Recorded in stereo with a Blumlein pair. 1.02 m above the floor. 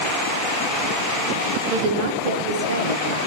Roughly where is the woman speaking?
Ahead right.